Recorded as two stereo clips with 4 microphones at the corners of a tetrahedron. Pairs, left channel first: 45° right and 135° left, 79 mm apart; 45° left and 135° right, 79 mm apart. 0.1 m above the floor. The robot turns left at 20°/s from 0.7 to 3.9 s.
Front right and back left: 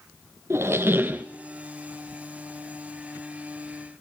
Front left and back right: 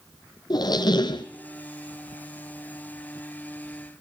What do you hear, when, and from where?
0.5 s a squeak: 75° left, 0.7 m; by 1.2 s 65° left, 0.7 m